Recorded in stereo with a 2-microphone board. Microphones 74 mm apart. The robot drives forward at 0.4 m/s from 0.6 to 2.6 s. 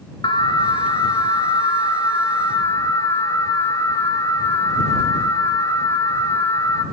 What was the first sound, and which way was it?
An alarm, 80° left.